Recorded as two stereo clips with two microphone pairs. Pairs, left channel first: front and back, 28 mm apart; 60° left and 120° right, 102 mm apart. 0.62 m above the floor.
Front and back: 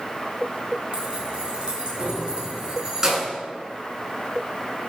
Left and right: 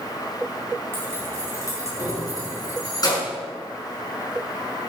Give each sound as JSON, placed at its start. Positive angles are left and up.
{"t": 0.9, "sound": "keys jangling", "azimuth_deg": 130, "distance_m": 5.0}